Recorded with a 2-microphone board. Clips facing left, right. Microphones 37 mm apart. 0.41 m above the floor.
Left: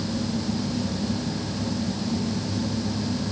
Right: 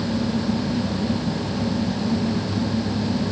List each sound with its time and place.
Only background noise.